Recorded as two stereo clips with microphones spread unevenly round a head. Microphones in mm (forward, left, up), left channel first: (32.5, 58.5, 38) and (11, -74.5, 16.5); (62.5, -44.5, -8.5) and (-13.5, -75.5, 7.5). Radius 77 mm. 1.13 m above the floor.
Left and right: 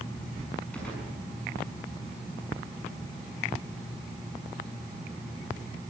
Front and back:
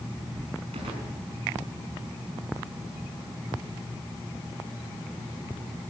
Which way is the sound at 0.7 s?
165° left.